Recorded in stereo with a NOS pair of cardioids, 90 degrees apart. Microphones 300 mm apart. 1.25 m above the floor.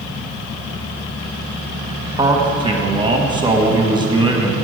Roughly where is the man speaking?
Ahead.